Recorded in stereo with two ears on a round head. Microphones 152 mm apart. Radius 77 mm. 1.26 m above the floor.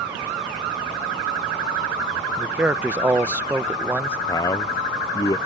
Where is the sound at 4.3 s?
20° left (ahead or behind).